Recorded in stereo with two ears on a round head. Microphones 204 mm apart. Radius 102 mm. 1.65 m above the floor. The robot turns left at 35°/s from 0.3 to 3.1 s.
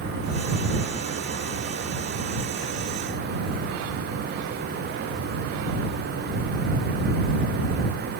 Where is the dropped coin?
No dropped coin in this recording.